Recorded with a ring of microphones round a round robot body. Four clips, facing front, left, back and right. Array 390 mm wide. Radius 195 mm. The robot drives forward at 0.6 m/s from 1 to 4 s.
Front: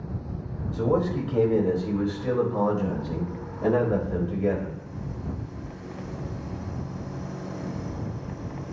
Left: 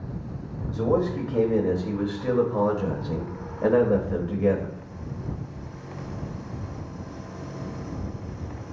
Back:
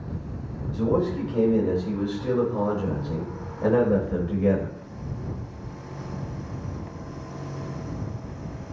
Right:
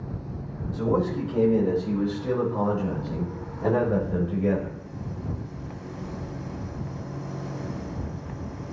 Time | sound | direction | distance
0.7 | a man speaking | 55° left | 2.5 m